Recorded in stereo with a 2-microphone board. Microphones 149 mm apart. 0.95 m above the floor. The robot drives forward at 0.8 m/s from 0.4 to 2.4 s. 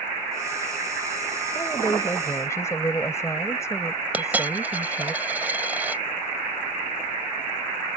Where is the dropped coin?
10° right (ahead or behind).